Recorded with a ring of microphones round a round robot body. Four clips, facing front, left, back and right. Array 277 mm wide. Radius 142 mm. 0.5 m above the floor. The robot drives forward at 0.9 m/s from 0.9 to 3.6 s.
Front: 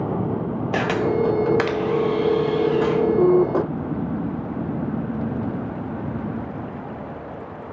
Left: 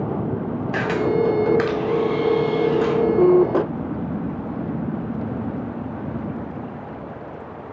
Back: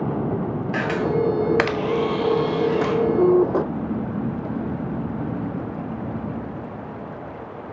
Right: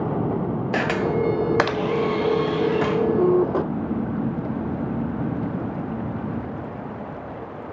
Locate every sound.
0.7 s a camera shutter: 40° right, 0.7 m; by 3.0 s 165° right, 1.5 m